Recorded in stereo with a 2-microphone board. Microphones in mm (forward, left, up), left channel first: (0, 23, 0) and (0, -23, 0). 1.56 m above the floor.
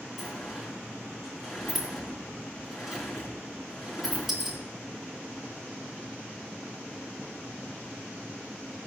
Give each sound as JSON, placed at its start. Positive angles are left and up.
{"t": 0.2, "sound": "a sliding door", "side_deg": 0, "distance_m": 3.5}